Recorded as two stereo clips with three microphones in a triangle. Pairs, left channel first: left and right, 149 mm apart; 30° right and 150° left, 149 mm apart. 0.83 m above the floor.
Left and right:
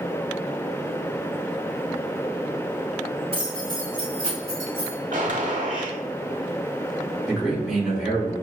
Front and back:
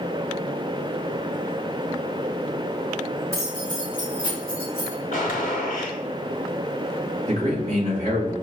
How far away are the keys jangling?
About 1.2 m.